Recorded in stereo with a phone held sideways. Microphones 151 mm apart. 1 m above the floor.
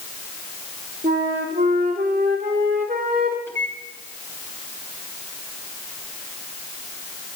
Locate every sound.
1.0 s a flute: 75° right (ahead or behind), 3 m
3.5 s a microwave: 15° left (ahead or behind), 6.5 m